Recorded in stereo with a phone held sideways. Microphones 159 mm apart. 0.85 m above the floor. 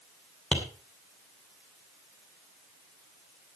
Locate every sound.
0.5 s tapping: 5° left (ahead or behind), 2.5 m